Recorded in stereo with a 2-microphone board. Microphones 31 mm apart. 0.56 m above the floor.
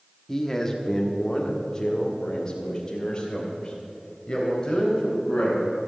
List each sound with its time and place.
0.3 s a man speaking: 15° left (ahead or behind), 1.1 m; by 5.6 s 30° left (ahead or behind), 4 m